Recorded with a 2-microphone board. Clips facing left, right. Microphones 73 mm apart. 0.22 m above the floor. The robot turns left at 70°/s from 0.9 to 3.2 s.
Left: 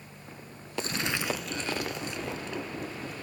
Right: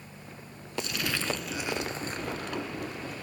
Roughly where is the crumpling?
Ahead left.